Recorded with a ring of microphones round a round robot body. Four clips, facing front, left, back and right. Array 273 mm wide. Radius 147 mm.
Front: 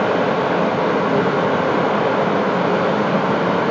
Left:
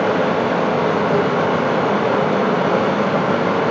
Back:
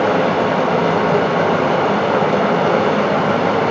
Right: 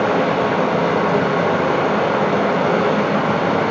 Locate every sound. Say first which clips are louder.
0.0 s running water: even, back 2 dB; 175° right, 1.8 m